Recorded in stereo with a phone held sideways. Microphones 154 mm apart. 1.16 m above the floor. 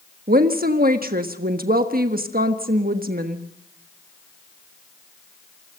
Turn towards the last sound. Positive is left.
turn(degrees=-75)  # may be behind; listen again after turning